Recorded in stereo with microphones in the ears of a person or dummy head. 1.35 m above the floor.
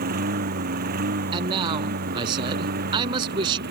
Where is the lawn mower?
50° right (ahead or behind); by 3.7 s 55° right (ahead or behind).